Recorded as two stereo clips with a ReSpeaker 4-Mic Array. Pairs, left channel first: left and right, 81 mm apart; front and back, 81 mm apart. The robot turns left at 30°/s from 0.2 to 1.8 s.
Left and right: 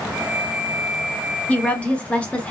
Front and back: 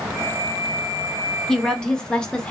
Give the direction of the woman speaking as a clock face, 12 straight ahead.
10 o'clock.